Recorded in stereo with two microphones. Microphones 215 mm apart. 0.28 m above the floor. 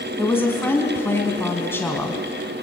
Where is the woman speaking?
10° left (ahead or behind), 2.5 m.